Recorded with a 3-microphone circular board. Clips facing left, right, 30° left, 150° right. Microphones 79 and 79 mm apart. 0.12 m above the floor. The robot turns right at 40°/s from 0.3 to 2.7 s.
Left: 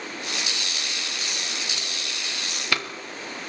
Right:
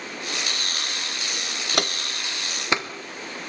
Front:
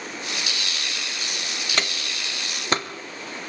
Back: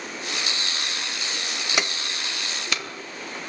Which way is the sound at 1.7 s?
70° right.